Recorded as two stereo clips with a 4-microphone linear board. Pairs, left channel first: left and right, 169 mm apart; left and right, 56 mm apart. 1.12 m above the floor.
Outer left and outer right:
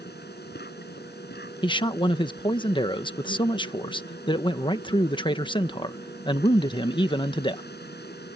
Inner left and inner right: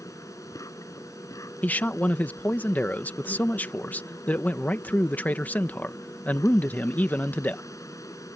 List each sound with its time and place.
0.0 s an insect: 80° left
1.6 s a man speaking: 30° left (ahead or behind)